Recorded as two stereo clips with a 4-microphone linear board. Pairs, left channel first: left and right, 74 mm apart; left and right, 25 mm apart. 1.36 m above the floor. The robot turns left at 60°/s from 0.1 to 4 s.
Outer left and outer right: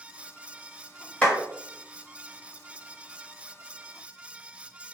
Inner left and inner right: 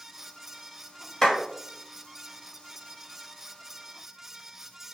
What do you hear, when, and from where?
1.2 s a clap: 15° left (ahead or behind), 1.2 m; by 1.4 s 5° left (ahead or behind), 1.2 m